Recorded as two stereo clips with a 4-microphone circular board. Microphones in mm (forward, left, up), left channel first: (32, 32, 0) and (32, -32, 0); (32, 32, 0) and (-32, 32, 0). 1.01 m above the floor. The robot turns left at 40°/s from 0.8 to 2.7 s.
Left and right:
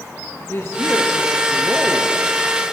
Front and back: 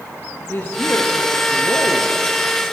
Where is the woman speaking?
50° left, 1.3 m; by 2.1 s 5° right, 1.3 m.